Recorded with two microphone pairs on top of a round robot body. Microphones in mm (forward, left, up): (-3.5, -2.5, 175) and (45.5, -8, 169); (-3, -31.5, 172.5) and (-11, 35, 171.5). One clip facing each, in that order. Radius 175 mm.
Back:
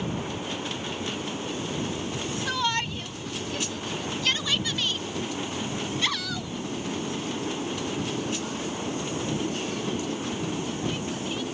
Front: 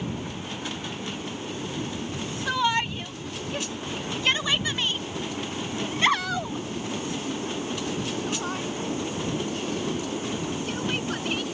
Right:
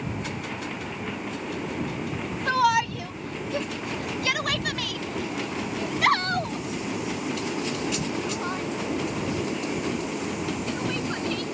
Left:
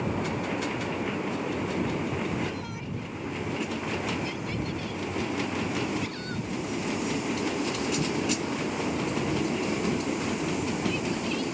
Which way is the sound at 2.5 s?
85° right.